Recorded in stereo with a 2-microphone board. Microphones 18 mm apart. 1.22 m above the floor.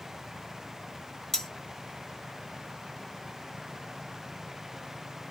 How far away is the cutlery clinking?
About 0.8 m.